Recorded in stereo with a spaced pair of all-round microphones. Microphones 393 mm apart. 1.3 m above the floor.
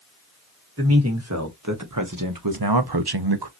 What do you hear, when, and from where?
0.8 s a man speaking: 35° right (ahead or behind), 2 m; by 3.5 s 75° right (ahead or behind), 0.8 m